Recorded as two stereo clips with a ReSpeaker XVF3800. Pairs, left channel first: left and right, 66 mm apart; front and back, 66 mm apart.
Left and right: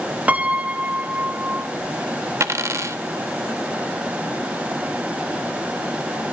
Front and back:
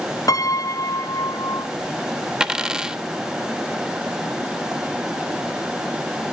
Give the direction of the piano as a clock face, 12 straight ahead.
1 o'clock.